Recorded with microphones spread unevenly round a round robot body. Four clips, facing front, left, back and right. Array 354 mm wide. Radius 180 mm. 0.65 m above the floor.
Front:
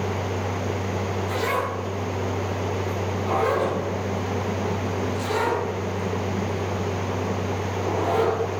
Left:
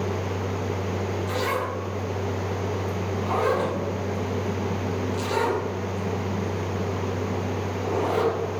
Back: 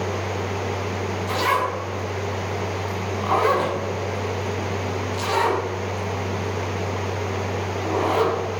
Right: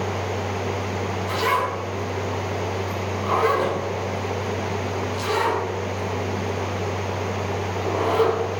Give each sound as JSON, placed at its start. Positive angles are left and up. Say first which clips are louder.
{"t": 1.3, "sound": "a zipper", "louder": "right 7 dB, back 5 dB", "azimuth_deg": 120, "distance_m": 5.0}